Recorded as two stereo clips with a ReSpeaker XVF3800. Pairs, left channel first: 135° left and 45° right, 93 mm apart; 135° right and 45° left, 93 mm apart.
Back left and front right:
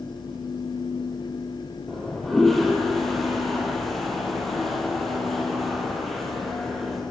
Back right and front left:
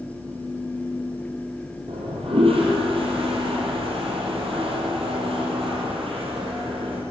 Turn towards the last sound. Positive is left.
turn(degrees=45)